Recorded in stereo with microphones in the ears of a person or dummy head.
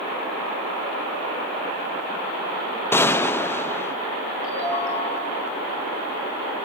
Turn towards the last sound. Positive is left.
turn(degrees=40)  # may be behind; listen again after turning